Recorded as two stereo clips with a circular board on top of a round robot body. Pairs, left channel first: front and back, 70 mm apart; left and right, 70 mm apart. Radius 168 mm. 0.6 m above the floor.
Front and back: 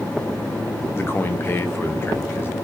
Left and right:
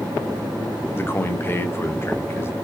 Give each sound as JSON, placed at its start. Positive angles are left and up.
{"t": 0.9, "sound": "a man speaking", "azimuth_deg": 45, "distance_m": 1.3}